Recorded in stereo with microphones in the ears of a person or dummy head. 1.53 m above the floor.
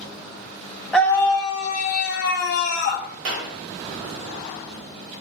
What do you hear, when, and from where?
0.9 s a scream: 5° left (ahead or behind), 0.6 m; by 3.1 s 70° left (ahead or behind), 1.3 m
3.2 s a clap: 65° right (ahead or behind), 1.1 m